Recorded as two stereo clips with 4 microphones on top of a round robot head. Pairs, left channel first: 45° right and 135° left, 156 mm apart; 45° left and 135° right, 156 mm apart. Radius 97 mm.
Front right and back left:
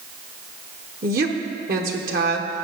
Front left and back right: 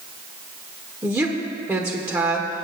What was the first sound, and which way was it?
A woman speaking, 155° left.